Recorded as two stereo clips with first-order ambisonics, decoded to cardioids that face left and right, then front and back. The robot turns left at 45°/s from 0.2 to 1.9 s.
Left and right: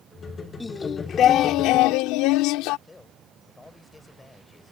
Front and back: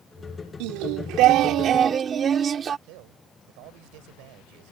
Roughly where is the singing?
Behind.